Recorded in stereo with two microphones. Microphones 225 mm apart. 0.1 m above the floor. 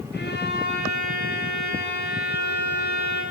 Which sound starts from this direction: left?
A violin, at 0.1 s.